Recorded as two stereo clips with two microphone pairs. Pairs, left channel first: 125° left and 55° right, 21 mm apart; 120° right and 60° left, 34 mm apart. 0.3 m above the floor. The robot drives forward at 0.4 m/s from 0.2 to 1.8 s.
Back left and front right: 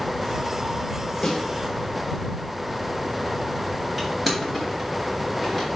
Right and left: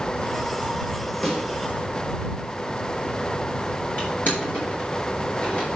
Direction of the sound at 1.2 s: 175° left.